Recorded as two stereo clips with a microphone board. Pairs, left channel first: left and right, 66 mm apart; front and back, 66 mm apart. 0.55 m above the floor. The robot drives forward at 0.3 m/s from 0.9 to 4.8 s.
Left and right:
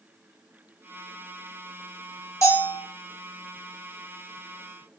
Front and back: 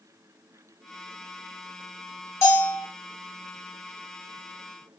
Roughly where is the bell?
Ahead left.